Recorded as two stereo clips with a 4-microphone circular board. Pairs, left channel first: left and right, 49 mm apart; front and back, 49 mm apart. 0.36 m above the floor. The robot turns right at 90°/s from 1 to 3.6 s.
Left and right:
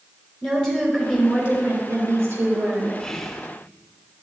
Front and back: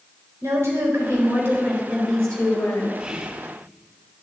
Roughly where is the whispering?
Behind left.